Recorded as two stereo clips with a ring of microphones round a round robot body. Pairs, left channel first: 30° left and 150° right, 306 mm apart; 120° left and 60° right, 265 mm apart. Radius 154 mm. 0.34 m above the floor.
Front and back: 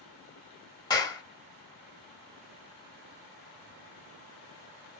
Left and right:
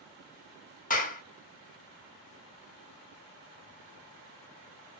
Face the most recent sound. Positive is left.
turn(degrees=95)